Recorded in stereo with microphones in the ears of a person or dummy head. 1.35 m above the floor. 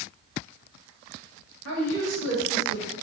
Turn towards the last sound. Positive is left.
turn(degrees=-75)  # may be behind; listen again after turning